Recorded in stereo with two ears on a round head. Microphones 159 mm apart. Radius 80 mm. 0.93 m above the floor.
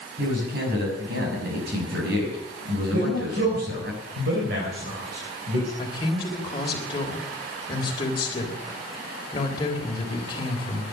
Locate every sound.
0.2 s a man speaking: 60° right (ahead or behind), 6 m
2.9 s a man speaking: 60° right (ahead or behind), 4 m
5.8 s a man speaking: 25° left (ahead or behind), 3.5 m